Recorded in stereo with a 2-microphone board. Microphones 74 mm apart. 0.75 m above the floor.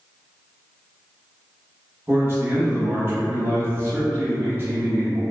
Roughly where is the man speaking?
Right.